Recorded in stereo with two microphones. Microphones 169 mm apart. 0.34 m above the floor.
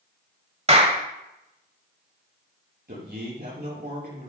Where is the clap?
40° right (ahead or behind), 1.3 m.